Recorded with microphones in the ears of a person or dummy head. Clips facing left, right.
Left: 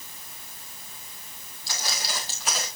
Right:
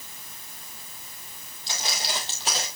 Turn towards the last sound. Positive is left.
turn(degrees=-30)  # may be behind; listen again after turning